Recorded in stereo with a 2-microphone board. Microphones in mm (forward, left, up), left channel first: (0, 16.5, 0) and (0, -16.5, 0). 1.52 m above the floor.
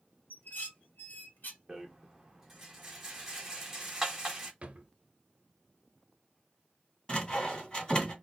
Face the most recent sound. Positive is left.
turn(degrees=25)  # may be behind; listen again after turning